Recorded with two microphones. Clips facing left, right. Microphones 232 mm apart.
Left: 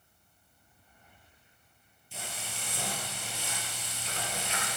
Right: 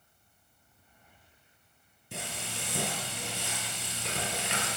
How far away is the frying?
About 5 m.